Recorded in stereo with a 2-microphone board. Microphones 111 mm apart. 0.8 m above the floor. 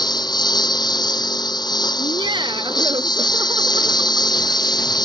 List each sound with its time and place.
0.0 s a lawn mower: 40° left (ahead or behind)
2.0 s laughter: 40° right (ahead or behind)